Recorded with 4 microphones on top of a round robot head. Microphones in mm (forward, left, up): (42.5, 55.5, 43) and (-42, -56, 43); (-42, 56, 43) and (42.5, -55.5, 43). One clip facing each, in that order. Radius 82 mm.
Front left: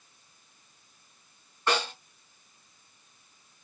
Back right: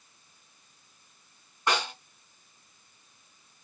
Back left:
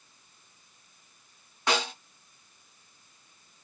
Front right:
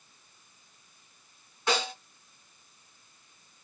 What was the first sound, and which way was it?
A snare drum, 155° left.